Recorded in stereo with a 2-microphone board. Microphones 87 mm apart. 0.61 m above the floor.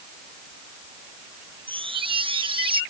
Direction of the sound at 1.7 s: 85° right.